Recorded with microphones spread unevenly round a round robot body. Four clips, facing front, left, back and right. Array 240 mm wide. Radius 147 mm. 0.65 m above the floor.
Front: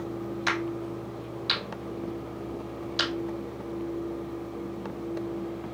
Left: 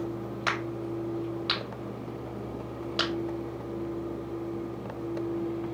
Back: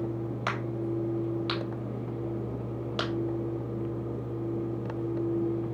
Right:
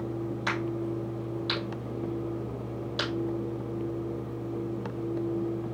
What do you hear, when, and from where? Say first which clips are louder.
0.5 s a crack: even, front 1 dB; 125° left, 3.5 m